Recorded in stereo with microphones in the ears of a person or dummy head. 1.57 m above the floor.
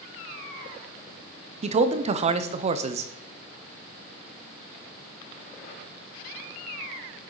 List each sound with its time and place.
1.6 s a man speaking: 40° right (ahead or behind), 0.6 m